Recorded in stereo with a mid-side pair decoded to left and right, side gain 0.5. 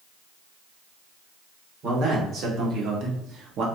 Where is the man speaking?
65° right, 2.0 m.